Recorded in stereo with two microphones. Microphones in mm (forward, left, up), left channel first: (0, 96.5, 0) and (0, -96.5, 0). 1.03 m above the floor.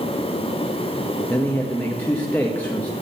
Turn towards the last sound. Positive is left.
turn(degrees=10)  # may be behind; listen again after turning